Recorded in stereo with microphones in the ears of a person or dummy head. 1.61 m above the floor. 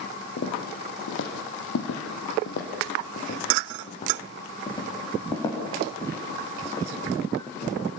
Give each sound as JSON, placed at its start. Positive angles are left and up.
{"t": 0.4, "sound": "footsteps", "side_deg": 50, "distance_m": 4.0}